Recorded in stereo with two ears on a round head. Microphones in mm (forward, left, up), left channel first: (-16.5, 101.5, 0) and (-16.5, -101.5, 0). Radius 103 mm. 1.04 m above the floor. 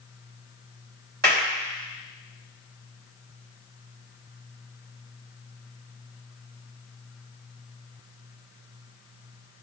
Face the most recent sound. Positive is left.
turn(degrees=-45)  # may be behind; listen again after turning